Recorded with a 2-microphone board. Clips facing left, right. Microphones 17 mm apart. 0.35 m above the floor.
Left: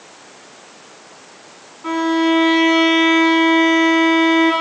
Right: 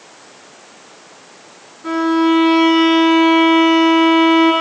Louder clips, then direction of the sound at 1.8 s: Right 2 dB; 60° left (ahead or behind).